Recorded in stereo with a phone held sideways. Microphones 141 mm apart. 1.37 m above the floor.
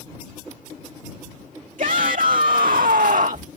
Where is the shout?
70° right (ahead or behind); by 3.5 s 60° right (ahead or behind).